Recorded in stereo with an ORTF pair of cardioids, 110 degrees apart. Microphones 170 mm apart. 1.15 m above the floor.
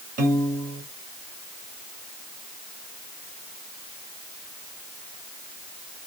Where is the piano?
50° right, 1.1 m.